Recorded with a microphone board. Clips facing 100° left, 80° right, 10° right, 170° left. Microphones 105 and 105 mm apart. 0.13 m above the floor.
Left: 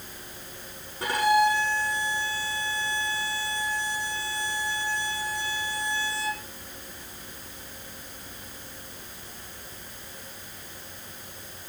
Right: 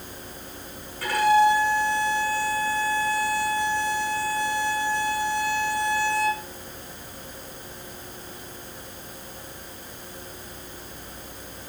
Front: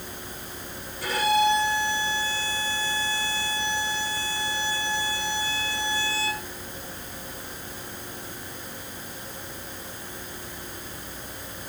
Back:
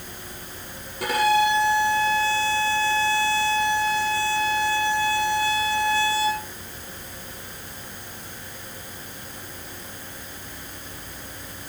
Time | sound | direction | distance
1.0 | a violin | 170° left | 6.5 m